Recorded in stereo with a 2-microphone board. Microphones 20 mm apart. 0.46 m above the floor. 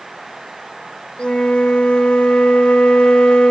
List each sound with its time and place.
1.2 s a flute: 55° left (ahead or behind), 0.9 m